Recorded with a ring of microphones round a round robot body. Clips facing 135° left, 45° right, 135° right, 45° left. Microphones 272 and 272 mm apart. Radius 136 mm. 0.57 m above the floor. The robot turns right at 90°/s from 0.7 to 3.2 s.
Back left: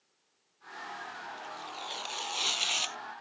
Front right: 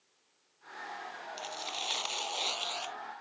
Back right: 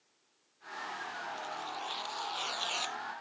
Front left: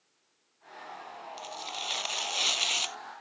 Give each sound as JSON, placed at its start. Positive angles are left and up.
{"t": 1.4, "sound": "tearing paper", "azimuth_deg": -25}